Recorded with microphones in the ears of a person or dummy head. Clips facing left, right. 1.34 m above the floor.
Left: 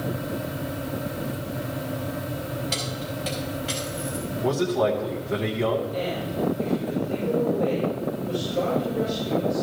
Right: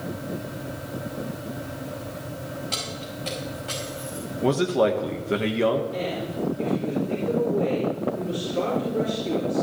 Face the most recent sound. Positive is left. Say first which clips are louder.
# left 1 dB
turn(degrees=-70)  # may be behind; listen again after turning